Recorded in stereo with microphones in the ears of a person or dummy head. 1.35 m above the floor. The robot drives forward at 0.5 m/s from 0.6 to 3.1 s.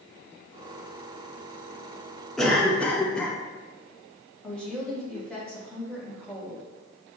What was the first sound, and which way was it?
A cough, 5° left (ahead or behind).